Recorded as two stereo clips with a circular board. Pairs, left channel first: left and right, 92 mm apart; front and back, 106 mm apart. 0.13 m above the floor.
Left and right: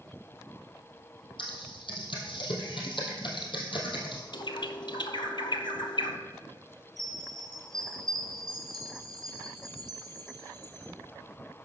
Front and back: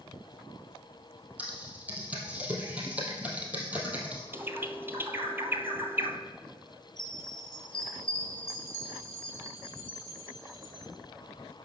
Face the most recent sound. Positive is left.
turn(degrees=-85)